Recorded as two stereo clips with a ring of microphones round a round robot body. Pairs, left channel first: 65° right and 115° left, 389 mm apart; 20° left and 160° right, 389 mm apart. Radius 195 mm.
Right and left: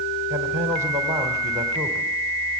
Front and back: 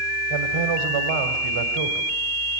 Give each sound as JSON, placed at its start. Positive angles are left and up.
{"t": 0.3, "sound": "a man speaking", "azimuth_deg": -165, "distance_m": 2.5}